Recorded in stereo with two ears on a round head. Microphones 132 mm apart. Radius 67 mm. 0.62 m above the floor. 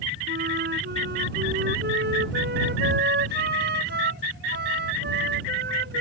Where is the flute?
85° right.